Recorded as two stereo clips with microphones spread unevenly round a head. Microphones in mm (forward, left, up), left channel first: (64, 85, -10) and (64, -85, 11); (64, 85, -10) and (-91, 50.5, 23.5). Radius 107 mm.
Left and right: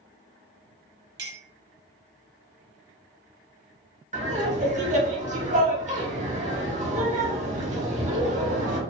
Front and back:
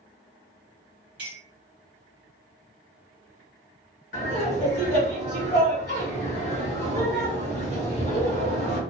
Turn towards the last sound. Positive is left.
turn(degrees=-45)